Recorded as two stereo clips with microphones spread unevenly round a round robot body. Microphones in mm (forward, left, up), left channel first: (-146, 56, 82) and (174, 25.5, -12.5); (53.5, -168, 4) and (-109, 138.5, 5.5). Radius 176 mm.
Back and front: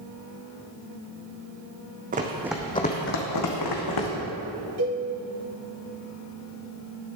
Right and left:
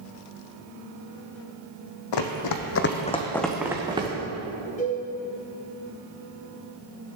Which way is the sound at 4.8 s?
5° left.